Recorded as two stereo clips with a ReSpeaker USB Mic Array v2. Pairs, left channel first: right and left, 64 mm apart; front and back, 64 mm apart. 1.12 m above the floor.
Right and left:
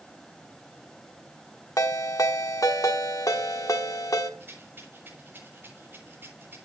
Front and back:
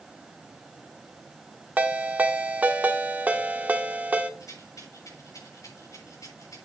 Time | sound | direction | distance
1.8 | a ringtone | 115° right | 1.3 m
4.4 | a rattle | 35° left | 7.5 m